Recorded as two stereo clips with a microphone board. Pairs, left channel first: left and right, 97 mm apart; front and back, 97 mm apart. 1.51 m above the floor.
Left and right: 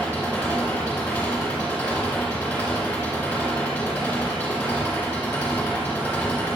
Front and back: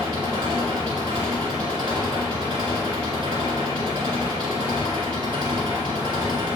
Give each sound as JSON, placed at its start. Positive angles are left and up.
{"t": 0.0, "sound": "an engine running", "azimuth_deg": 165, "distance_m": 2.0}